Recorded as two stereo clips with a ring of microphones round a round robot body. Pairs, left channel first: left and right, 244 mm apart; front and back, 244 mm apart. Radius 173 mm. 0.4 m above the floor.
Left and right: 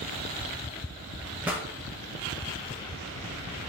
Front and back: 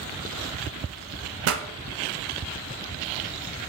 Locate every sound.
1.4 s a pop: 175° right, 0.7 m